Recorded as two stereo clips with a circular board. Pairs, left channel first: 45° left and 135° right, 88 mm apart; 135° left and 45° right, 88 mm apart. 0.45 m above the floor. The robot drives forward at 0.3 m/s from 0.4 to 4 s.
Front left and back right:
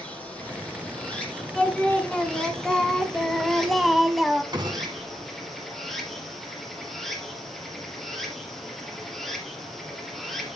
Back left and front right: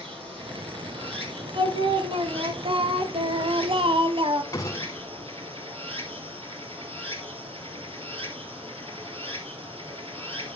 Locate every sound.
0.0 s running water: 35° right, 4 m; by 10.6 s 45° right, 3 m
1.6 s singing: 30° right, 2 m; by 4.4 s 45° right, 1.4 m
4.5 s a gunshot: 175° right, 1.3 m